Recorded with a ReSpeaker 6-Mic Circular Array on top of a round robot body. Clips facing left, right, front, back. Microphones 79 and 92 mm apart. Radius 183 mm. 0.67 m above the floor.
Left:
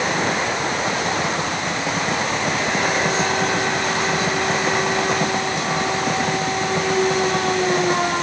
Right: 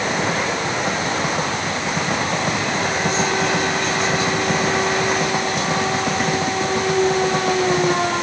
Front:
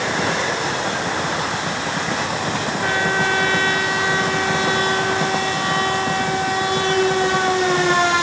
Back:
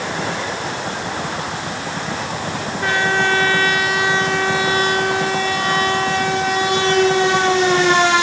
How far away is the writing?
No writing in this recording.